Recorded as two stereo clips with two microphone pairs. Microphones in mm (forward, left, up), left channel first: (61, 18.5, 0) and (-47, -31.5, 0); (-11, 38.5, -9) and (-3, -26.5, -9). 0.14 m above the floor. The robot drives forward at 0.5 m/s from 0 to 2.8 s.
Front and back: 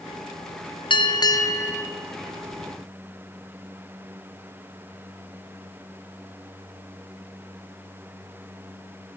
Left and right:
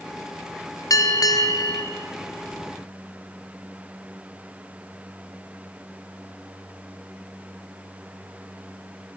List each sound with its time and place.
0.9 s a bell: 70° left, 1.1 m; by 1.8 s 95° left, 1.0 m